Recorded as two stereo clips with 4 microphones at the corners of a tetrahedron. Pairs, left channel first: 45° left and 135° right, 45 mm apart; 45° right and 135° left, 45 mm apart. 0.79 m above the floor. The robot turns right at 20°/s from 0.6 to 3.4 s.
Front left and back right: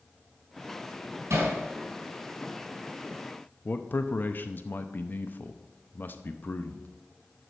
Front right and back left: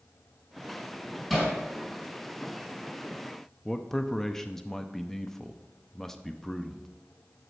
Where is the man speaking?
35° left, 0.7 m.